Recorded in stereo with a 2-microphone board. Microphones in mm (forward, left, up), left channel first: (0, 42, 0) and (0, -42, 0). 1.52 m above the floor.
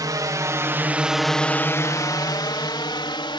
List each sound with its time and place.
0.0 s a drone: 50° right (ahead or behind); by 3.4 s 70° left (ahead or behind)